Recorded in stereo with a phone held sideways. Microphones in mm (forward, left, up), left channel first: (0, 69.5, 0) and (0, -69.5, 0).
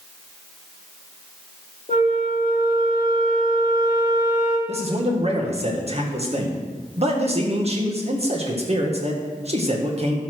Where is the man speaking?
50° right (ahead or behind), 1.7 m.